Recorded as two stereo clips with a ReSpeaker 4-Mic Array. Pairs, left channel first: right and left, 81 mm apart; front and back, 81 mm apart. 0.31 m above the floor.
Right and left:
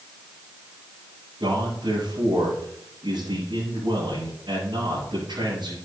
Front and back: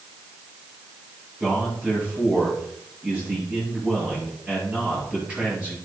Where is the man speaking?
105° left, 6.5 m.